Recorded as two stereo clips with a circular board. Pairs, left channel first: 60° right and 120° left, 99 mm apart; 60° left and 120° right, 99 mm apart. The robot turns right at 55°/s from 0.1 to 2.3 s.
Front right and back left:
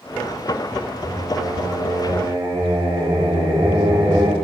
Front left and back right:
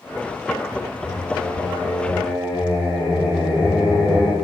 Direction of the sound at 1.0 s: 95° left.